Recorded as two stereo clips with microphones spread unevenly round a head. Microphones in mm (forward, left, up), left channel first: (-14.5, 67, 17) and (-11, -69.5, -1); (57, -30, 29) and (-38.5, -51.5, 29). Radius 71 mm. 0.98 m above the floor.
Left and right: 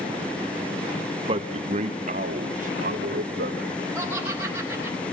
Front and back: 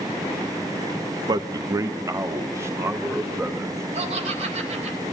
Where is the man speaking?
130° right, 1.4 m; by 3.8 s 105° right, 4.5 m.